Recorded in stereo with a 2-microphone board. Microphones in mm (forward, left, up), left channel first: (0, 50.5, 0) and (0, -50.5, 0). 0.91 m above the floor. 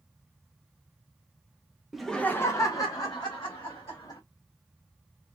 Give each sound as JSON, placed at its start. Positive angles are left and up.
{"t": 1.9, "sound": "laughter", "side_deg": -5, "distance_m": 0.5}